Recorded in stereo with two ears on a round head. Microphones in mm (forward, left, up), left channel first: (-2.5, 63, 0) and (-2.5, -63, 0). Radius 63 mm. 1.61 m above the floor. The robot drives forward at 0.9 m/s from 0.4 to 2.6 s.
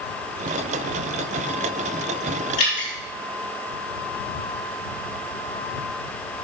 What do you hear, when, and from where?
2.6 s dripping: 55° left (ahead or behind), 3 m